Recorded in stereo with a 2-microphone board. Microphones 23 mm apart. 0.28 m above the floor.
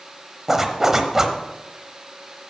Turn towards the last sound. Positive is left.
turn(degrees=-15)  # may be behind; listen again after turning